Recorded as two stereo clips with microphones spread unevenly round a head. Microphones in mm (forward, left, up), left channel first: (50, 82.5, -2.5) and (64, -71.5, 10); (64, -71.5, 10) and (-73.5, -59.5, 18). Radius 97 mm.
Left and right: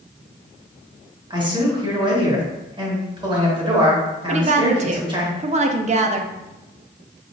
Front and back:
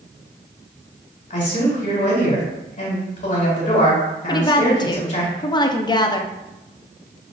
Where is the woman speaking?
50° right, 0.6 m.